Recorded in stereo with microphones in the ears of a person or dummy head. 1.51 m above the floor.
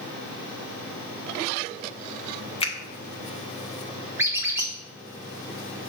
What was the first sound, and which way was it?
A finger snap, 25° left (ahead or behind).